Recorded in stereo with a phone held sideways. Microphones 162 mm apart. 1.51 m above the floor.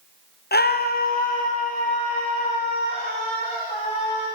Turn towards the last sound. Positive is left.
turn(degrees=40)  # may be behind; listen again after turning